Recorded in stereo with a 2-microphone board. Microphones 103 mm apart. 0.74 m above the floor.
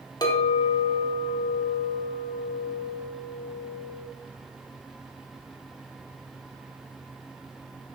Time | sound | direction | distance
0.2 | a clink | 40° left (ahead or behind) | 0.6 m